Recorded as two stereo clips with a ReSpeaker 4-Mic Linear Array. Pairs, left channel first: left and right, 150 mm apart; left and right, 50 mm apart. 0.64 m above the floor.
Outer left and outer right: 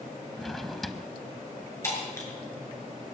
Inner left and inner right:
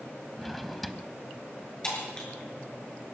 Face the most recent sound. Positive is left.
turn(degrees=20)  # may be behind; listen again after turning